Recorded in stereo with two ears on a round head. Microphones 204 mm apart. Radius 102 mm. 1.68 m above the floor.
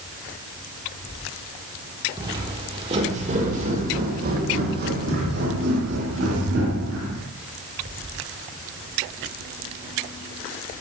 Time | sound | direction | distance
2.2 | footsteps | 15° right (ahead or behind) | 1.9 m